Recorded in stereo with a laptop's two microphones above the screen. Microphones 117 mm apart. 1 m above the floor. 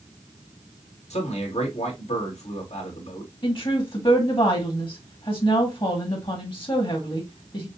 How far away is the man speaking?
About 2 m.